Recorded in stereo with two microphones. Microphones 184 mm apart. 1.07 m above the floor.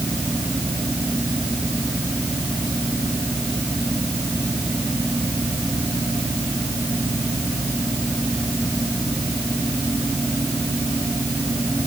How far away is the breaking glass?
I don't hear breaking glass.